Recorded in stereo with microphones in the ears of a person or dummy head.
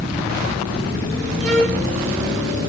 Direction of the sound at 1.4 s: 45° right (ahead or behind).